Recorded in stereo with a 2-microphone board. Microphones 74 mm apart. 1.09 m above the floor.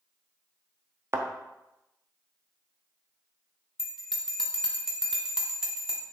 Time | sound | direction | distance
1.1 | a thud | 35° right (ahead or behind) | 0.8 m
3.8 | a bell | 5° right (ahead or behind) | 1.2 m